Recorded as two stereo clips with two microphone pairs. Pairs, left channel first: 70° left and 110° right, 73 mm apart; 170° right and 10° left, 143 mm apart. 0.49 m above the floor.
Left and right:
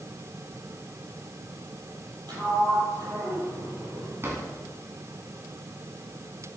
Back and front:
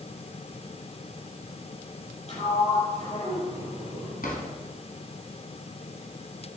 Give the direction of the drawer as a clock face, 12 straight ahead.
6 o'clock.